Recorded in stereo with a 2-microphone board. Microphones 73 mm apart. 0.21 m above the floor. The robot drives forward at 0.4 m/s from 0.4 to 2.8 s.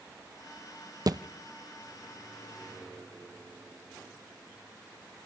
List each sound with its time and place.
1.1 s a thud: 55° right (ahead or behind), 0.9 m